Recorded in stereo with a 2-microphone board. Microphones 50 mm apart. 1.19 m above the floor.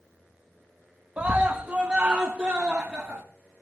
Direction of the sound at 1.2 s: 25° right (ahead or behind).